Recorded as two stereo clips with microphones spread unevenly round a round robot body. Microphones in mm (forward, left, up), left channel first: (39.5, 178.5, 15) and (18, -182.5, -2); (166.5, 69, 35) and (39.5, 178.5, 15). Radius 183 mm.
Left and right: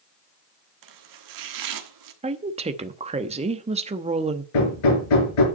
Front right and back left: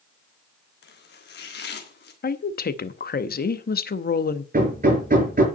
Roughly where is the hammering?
Left.